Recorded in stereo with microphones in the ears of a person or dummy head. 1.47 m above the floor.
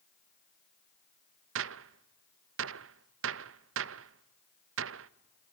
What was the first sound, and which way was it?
A gunshot, 65° right (ahead or behind).